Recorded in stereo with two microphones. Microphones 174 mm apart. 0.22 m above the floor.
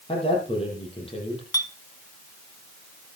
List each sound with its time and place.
0.1 s a man speaking: 35° left (ahead or behind), 7.5 m
1.5 s a clink: 20° left (ahead or behind), 1.0 m